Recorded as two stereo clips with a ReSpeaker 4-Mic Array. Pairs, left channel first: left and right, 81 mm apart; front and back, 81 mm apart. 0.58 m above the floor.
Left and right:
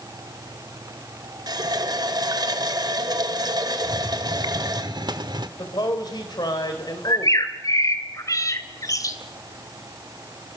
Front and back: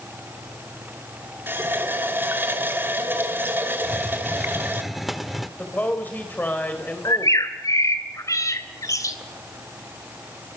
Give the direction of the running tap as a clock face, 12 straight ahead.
4 o'clock.